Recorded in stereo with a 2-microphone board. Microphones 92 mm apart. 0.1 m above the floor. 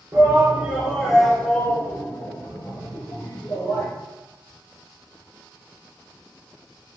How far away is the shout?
About 1.3 m.